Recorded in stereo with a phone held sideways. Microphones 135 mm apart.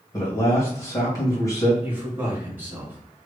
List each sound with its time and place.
0.1 s a man speaking: 25° left (ahead or behind), 1.6 m
1.8 s a man speaking: 15° right (ahead or behind), 2.0 m